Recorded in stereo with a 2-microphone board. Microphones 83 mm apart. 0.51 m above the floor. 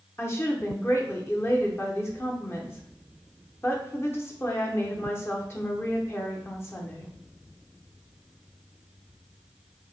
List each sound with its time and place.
0.2 s a woman speaking: 30° left (ahead or behind), 0.9 m